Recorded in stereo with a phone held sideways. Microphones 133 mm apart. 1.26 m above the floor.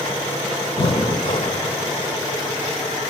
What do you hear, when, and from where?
0.8 s breathing: 40° left (ahead or behind), 1.7 m